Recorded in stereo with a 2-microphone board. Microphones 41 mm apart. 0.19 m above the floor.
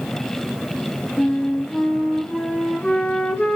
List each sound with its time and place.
1.2 s a flute: 25° left (ahead or behind), 2 m